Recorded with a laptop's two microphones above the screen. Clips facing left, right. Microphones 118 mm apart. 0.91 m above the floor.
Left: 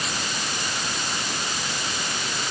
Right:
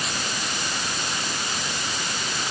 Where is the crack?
No crack in this recording.